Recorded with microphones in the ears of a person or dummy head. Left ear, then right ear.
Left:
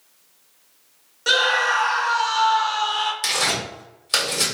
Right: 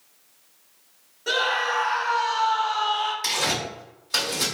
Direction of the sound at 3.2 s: 65° left (ahead or behind).